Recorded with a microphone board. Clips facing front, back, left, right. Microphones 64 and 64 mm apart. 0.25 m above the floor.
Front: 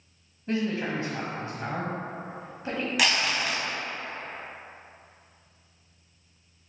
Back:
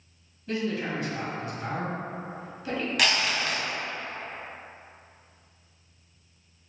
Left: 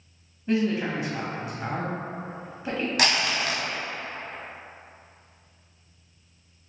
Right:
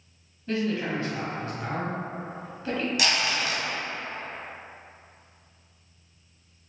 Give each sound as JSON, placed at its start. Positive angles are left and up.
{"t": 0.5, "sound": "a man speaking", "azimuth_deg": 30, "distance_m": 1.1}
{"t": 3.0, "sound": "crumpling", "azimuth_deg": 85, "distance_m": 0.7}